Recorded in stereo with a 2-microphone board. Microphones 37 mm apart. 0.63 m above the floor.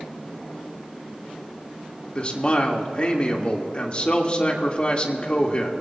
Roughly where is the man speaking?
Left.